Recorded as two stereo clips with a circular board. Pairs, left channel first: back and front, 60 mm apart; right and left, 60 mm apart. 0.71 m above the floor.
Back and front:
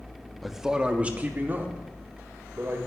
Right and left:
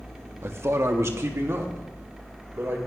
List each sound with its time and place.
0.4 s a man speaking: 90° left, 1.1 m; by 2.8 s 45° left, 3 m